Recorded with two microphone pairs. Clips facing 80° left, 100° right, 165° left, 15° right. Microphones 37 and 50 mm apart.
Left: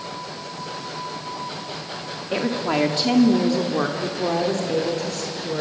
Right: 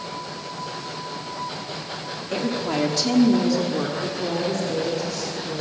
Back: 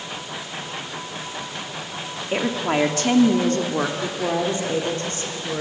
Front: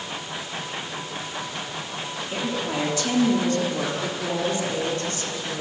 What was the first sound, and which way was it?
A woman speaking, 145° left.